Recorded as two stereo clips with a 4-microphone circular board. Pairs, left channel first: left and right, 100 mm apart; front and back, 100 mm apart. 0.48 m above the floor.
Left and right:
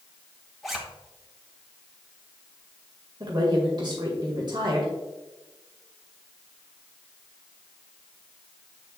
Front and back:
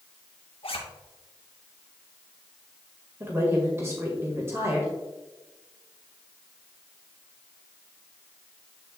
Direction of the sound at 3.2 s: 125° right.